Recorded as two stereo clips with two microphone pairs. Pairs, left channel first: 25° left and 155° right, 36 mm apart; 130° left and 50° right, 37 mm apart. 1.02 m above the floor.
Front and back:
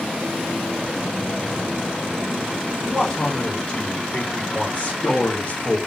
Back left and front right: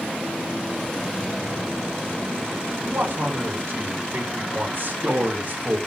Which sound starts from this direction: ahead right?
A man speaking, at 2.9 s.